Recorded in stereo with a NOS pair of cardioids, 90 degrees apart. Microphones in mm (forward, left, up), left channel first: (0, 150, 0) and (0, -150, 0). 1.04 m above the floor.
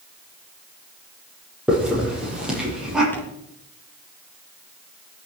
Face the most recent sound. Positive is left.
turn(degrees=5)